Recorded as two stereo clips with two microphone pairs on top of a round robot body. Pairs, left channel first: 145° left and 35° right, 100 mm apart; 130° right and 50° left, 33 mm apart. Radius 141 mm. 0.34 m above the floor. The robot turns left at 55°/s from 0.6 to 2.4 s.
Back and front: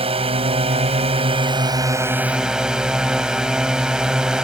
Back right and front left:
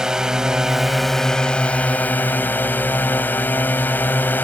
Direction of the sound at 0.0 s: 20° right.